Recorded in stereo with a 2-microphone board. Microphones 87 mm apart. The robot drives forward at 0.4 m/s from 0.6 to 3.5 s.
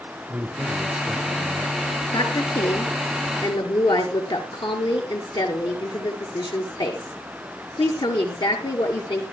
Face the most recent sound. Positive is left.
turn(degrees=65)  # may be behind; listen again after turning